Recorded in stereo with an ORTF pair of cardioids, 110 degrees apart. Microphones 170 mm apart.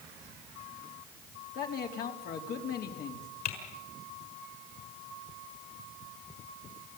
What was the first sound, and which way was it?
A man speaking, 65° left.